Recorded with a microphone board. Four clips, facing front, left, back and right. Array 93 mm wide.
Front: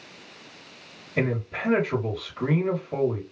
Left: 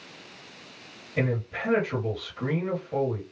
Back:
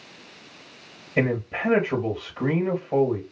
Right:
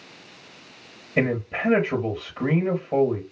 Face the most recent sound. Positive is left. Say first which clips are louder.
# right 5 dB, back 3 dB
turn(degrees=-125)